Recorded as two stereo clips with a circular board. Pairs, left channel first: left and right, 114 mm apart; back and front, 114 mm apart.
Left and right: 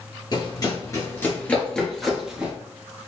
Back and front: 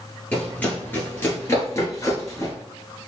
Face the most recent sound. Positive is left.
turn(degrees=-160)